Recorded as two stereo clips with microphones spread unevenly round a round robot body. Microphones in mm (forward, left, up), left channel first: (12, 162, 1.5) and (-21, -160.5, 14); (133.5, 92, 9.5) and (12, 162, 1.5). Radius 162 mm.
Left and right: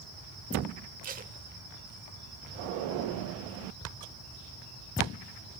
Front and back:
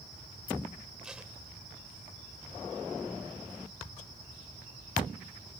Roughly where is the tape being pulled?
Behind right.